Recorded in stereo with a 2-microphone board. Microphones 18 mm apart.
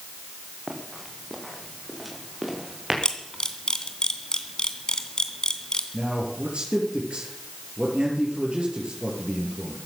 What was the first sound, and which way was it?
Running footsteps, 5° left (ahead or behind).